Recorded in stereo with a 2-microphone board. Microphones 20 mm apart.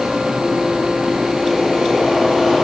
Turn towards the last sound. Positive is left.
No sound to turn to.